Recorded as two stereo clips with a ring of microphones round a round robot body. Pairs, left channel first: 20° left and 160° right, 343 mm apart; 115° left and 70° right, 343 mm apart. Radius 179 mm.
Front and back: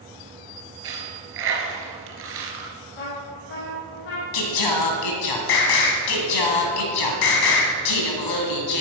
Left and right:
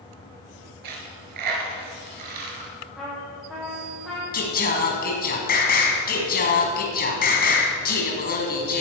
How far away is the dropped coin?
About 3 m.